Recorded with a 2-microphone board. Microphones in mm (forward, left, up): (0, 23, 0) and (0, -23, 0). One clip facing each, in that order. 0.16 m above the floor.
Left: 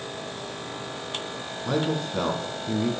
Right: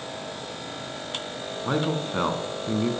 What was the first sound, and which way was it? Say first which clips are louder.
A man speaking: even; 30° right (ahead or behind).